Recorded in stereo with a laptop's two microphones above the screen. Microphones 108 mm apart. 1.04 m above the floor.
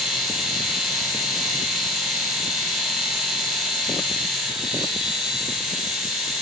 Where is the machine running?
5° right (ahead or behind), 3.5 m.